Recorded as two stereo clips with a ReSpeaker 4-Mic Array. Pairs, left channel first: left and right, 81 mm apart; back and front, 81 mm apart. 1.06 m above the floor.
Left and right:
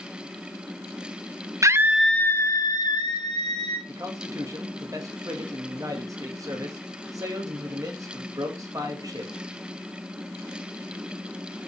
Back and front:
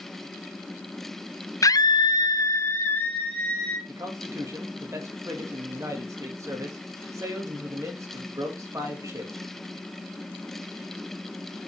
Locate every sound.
1.6 s a scream: 135° right, 0.6 m; by 3.8 s 110° left, 1.8 m
3.9 s a man speaking: 50° right, 2.0 m